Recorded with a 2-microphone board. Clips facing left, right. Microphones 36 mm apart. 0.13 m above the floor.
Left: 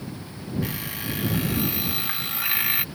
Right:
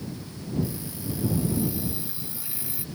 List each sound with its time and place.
0.6 s an alarm clock: 60° left (ahead or behind)